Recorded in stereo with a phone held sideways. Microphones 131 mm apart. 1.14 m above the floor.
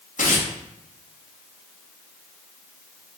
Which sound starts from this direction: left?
Tearing paper, at 0.2 s.